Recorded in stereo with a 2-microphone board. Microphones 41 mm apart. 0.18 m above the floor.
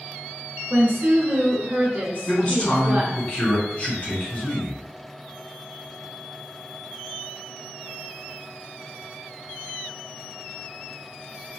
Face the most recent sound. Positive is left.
turn(degrees=30)  # may be behind; listen again after turning